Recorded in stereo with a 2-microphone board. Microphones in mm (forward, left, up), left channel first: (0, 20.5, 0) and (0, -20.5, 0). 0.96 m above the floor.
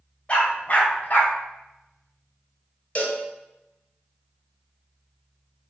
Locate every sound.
0.3 s a dog barking: 30° left (ahead or behind), 1.9 m; by 1.3 s 50° left (ahead or behind), 1.5 m
3.0 s a cowbell: 35° left (ahead or behind), 1.6 m